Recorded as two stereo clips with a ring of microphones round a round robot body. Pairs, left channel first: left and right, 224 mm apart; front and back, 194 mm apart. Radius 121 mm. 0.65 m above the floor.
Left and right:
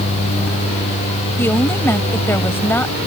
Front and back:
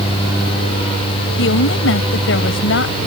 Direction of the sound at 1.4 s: 10° left.